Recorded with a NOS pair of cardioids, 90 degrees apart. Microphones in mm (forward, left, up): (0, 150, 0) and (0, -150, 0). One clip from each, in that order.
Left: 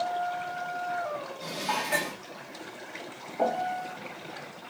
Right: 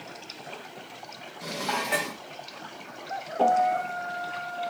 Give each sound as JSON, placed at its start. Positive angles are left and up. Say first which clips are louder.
{"t": 1.4, "sound": "dishes clattering", "louder": "right 2 dB", "azimuth_deg": -15, "distance_m": 1.0}
{"t": 3.4, "sound": "a piano", "louder": "right 6 dB", "azimuth_deg": -20, "distance_m": 1.0}